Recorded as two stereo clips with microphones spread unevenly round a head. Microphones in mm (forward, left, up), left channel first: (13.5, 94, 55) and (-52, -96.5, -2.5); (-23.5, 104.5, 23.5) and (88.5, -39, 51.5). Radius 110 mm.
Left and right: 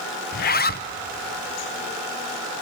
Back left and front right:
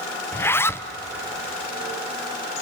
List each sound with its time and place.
0.3 s a zipper: 85° left, 0.6 m